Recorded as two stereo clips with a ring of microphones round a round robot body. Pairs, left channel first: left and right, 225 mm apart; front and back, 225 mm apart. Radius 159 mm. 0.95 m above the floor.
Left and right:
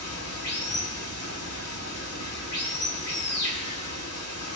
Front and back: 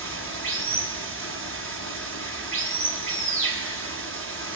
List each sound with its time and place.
0.0 s running water: 150° left, 6 m